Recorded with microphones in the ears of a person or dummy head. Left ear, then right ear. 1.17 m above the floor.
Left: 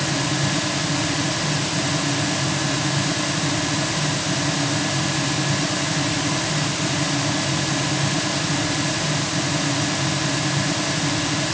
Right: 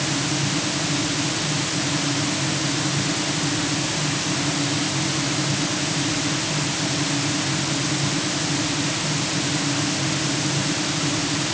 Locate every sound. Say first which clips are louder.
0.0 s a fan: left 1 dB; 45° left (ahead or behind)